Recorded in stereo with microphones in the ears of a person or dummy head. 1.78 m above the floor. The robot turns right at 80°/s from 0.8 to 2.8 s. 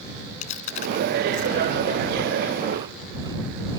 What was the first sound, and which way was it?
Chewing, 45° left (ahead or behind).